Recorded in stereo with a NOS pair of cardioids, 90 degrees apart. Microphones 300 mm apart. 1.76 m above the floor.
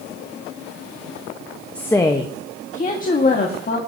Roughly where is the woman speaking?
Ahead.